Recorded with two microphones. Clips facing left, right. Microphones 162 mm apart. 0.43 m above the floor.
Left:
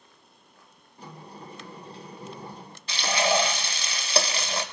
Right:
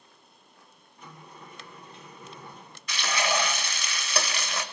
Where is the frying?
30° left (ahead or behind), 1.0 m.